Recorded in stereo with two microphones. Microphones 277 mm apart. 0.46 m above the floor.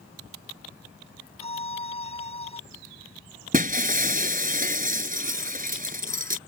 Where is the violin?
75° right (ahead or behind).